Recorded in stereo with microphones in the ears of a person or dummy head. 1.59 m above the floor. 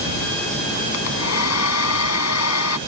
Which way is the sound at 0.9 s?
80° left.